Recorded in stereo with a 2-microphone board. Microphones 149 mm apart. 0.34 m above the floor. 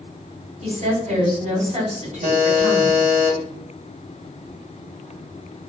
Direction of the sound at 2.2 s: 50° right (ahead or behind).